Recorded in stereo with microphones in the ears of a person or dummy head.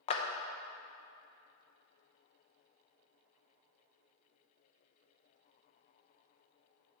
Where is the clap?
35° left (ahead or behind), 0.6 m.